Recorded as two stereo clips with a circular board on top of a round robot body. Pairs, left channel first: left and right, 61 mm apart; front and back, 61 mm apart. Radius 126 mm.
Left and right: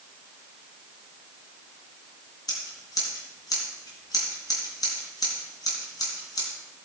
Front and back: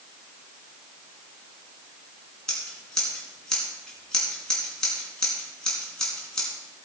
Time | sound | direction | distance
2.5 | scissors | 80° left | 3 m